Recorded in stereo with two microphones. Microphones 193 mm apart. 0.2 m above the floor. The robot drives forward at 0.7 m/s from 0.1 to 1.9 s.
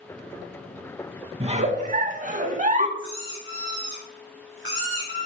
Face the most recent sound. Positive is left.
turn(degrees=75)  # may be behind; listen again after turning